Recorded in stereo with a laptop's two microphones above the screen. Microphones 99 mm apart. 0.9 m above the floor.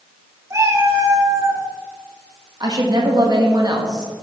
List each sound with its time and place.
0.5 s a cat meowing: 30° right (ahead or behind), 1.9 m
2.6 s a woman speaking: 45° right (ahead or behind), 1.5 m